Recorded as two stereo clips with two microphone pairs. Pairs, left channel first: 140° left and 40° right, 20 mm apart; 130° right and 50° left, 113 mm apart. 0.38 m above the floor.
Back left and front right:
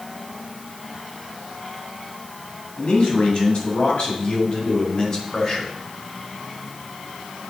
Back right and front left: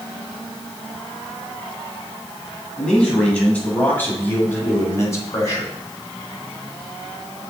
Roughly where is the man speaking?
Behind left.